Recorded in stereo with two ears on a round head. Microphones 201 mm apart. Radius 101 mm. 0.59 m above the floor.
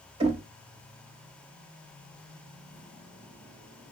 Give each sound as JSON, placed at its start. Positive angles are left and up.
{"t": 0.2, "sound": "knocking", "side_deg": -25, "distance_m": 1.1}